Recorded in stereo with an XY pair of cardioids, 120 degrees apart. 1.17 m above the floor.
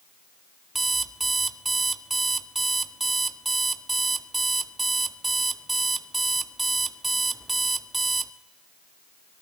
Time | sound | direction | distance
0.8 | an alarm clock | 15° right | 1.1 m